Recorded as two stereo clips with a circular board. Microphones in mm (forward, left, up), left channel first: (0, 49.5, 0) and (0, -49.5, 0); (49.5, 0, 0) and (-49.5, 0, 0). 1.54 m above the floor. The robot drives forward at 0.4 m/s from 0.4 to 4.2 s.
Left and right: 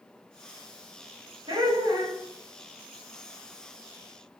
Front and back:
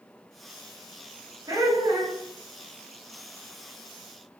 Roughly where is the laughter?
Behind right.